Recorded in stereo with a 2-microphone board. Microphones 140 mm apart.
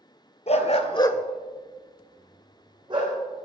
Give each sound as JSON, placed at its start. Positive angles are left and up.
{"t": 0.5, "sound": "a dog barking", "side_deg": 55, "distance_m": 1.1}